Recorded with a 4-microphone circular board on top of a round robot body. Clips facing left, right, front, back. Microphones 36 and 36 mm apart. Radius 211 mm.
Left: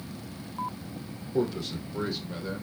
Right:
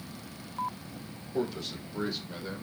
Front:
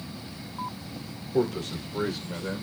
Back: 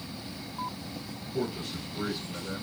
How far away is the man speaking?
About 3.5 m.